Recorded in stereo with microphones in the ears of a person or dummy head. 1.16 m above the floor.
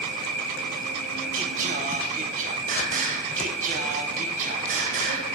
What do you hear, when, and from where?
0.0 s an insect: 75° right (ahead or behind), 4 m
1.3 s singing: 45° right (ahead or behind), 0.8 m